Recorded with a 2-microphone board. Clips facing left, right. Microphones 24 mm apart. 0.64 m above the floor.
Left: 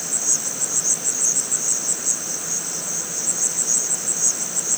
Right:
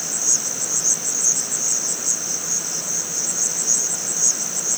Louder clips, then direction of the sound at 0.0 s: Right 2 dB; 35° right (ahead or behind).